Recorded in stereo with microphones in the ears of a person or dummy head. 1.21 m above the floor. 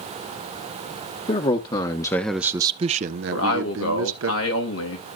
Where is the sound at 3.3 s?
80° left, 2.5 m.